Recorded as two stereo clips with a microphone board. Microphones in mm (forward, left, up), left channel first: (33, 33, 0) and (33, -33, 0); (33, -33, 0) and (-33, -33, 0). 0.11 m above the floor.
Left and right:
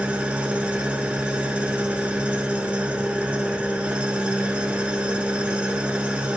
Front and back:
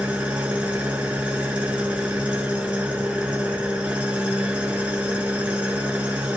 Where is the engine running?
130° right, 1.1 m.